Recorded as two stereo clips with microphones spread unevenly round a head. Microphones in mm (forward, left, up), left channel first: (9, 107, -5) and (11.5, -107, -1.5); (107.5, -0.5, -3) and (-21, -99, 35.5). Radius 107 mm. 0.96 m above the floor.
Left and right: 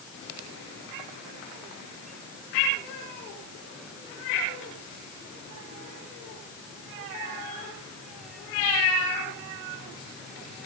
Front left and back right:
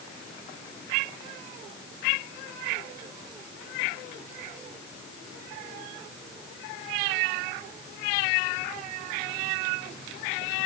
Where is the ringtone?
No ringtone in this recording.